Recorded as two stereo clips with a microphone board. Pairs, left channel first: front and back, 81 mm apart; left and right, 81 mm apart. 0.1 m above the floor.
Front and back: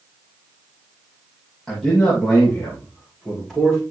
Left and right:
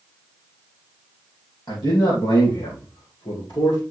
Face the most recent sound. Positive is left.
turn(degrees=90)